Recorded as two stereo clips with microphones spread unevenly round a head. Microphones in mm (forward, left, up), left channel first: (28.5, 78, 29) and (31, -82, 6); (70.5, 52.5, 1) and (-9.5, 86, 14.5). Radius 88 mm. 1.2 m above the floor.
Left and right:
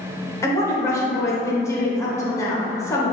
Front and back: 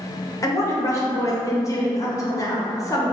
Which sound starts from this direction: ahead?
A woman speaking, at 0.4 s.